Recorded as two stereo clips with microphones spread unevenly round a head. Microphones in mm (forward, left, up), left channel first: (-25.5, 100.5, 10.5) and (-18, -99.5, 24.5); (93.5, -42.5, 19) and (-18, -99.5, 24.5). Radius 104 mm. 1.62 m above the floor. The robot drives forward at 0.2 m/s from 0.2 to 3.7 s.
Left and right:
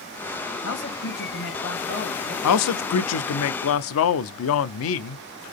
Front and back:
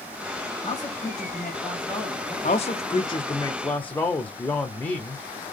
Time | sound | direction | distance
0.6 | a man speaking | 110° left | 1.9 m
2.4 | a man speaking | 85° left | 0.6 m